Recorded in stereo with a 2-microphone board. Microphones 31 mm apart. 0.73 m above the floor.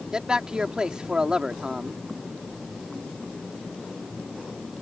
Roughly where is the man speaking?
Right.